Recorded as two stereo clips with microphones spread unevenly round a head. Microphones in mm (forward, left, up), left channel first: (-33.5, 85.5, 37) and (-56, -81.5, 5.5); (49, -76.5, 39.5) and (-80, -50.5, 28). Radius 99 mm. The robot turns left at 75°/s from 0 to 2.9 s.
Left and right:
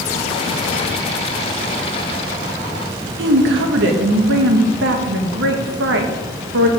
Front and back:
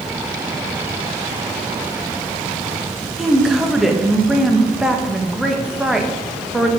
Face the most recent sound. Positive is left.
turn(degrees=-105)